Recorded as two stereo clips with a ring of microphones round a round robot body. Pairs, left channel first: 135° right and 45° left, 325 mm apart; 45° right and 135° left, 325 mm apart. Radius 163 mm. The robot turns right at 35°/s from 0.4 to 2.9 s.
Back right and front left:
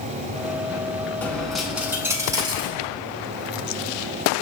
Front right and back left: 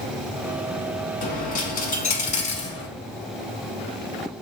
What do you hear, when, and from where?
1.2 s a dropped coin: 55° right, 0.6 m; by 2.9 s straight ahead, 0.6 m